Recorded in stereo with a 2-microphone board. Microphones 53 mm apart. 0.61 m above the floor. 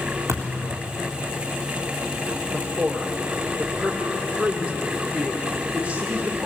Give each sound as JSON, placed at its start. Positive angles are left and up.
{"t": 0.3, "sound": "a thud", "side_deg": -75, "distance_m": 4.0}
{"t": 2.5, "sound": "a man speaking", "side_deg": -25, "distance_m": 2.0}